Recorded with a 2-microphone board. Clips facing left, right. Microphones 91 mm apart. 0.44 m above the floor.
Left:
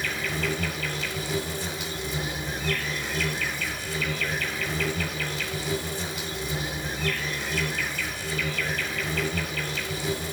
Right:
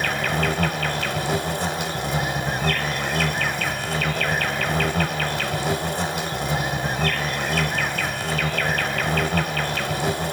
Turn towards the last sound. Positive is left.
turn(degrees=-60)  # may be behind; listen again after turning